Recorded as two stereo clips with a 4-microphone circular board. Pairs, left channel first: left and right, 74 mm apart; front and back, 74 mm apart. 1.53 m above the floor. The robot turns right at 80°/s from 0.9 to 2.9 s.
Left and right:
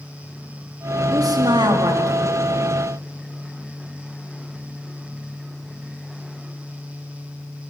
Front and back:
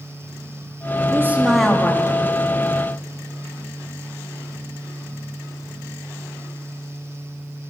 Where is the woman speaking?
130° right, 3.5 m; by 2.4 s 30° right, 3.5 m.